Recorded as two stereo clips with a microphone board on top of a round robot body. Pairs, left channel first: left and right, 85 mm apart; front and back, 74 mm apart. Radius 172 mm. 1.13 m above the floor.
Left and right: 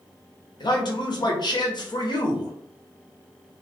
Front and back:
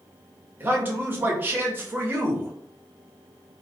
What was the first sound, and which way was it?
A man speaking, 120° left.